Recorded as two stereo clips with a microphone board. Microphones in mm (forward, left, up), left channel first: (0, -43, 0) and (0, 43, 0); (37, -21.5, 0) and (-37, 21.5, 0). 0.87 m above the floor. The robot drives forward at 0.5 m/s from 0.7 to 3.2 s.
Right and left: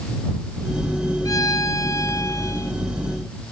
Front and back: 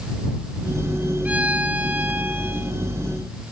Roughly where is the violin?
Behind right.